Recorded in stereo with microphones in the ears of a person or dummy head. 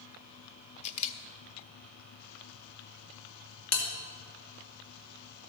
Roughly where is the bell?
Left.